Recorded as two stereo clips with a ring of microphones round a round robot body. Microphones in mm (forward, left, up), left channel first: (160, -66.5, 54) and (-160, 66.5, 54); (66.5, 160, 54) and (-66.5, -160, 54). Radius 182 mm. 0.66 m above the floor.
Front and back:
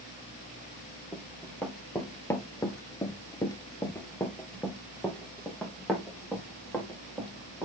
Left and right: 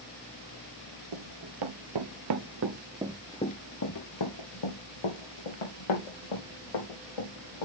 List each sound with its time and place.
1.1 s running footsteps: 110° right, 1.4 m; by 7.7 s 65° left, 3 m